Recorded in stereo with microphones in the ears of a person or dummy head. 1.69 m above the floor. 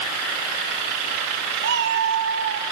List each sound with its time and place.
1.6 s a cat meowing: 50° right (ahead or behind), 1.7 m